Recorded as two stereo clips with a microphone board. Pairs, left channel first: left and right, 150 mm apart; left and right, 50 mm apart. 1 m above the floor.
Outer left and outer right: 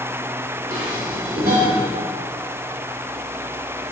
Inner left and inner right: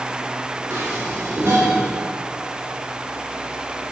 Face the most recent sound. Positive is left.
turn(degrees=-70)  # may be behind; listen again after turning